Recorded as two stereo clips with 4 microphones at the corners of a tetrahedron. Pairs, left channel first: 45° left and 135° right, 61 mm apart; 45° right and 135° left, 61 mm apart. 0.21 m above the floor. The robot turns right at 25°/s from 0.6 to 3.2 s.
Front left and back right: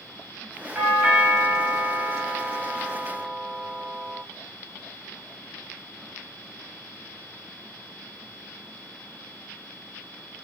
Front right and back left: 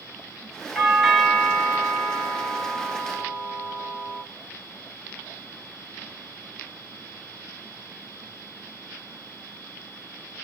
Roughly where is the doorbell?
Behind right.